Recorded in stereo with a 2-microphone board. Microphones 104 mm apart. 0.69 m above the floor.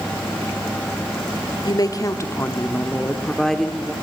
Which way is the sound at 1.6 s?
45° left (ahead or behind).